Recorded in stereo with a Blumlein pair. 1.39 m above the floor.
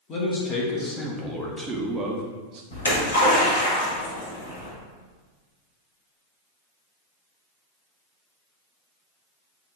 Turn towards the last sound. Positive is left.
turn(degrees=60)